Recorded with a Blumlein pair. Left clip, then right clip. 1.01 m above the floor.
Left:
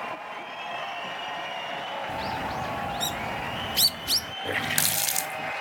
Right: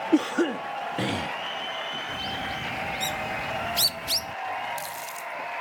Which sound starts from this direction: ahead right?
A cough, at 0.1 s.